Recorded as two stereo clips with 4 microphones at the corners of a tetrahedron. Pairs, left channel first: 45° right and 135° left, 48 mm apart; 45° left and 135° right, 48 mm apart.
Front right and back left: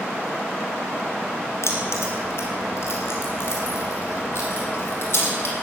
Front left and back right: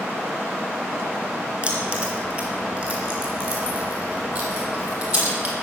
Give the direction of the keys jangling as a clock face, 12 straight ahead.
3 o'clock.